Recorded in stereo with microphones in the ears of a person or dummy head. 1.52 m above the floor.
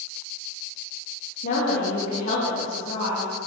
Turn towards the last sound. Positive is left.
turn(degrees=35)  # may be behind; listen again after turning